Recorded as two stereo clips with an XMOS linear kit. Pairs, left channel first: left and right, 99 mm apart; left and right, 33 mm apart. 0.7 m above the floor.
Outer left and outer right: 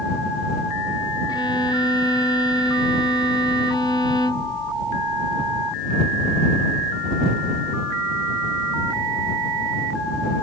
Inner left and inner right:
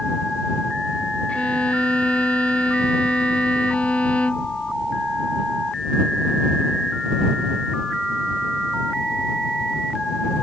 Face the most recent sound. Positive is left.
turn(degrees=45)  # may be behind; listen again after turning